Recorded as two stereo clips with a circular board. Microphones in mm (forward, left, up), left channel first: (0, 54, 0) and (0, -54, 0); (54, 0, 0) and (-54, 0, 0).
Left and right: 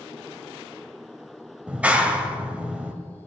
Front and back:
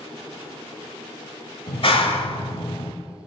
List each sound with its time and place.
1.7 s a clap: 15° right, 1.5 m